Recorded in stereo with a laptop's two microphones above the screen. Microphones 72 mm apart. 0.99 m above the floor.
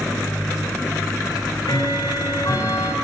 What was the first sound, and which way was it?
Ticking, 80° left.